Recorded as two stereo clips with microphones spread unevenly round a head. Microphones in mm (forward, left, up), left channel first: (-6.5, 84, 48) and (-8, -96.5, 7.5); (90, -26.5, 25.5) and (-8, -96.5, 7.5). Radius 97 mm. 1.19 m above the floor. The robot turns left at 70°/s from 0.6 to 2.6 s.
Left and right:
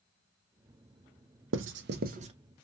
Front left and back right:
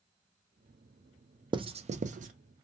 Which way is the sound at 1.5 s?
90° right.